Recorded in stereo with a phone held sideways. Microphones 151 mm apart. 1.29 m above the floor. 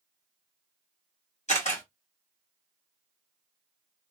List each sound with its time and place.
1.5 s a camera shutter: 50° left (ahead or behind), 1.9 m